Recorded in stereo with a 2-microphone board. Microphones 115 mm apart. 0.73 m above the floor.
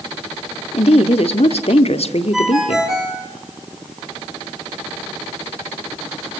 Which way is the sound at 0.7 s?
65° left (ahead or behind).